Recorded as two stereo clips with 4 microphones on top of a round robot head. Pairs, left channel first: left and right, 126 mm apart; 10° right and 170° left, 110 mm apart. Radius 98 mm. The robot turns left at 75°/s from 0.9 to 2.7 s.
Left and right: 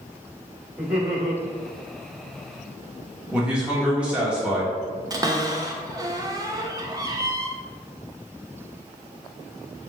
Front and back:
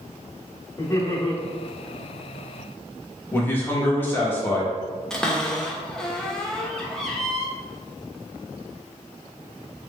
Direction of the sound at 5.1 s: 85° right.